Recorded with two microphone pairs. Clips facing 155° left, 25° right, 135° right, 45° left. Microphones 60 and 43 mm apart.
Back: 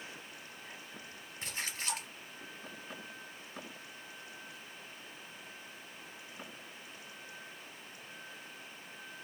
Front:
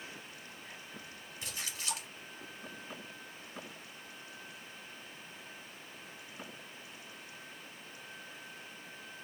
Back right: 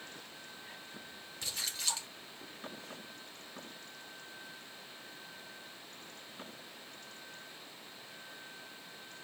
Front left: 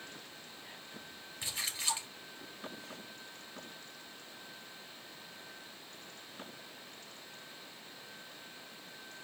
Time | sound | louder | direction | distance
1.4 | a splash | back 3 dB, front left 1 dB | 115° left | 2.5 m